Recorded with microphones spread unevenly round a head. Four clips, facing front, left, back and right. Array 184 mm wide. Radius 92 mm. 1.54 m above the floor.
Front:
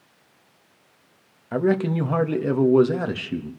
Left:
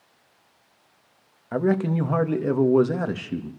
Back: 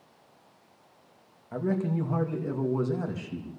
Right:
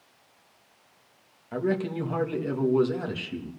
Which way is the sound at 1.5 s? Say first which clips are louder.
Left 5 dB, front 7 dB; 35° left.